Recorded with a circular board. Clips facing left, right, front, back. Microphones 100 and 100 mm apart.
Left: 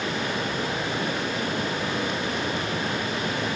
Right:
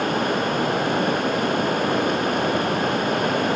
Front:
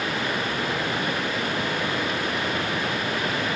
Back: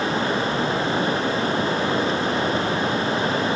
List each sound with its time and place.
0.0 s running water: 120° right, 2.5 m